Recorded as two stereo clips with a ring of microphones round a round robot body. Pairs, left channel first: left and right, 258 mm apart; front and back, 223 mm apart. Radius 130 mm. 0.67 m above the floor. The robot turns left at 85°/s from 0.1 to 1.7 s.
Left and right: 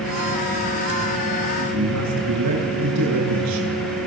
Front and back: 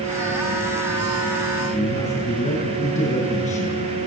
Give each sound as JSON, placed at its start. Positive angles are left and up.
{"t": 1.7, "sound": "a man speaking", "azimuth_deg": -65, "distance_m": 9.0}